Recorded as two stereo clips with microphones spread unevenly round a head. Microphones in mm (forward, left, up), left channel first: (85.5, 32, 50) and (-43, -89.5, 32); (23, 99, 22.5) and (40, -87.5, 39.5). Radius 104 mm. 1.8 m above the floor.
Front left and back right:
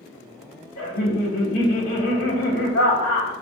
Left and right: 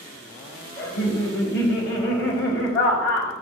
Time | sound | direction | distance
0.8 | laughter | 65° left | 2 m